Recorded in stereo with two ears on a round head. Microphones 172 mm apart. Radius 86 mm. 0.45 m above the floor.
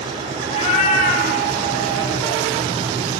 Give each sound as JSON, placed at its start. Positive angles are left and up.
{"t": 0.5, "sound": "a cat meowing", "side_deg": 30, "distance_m": 0.6}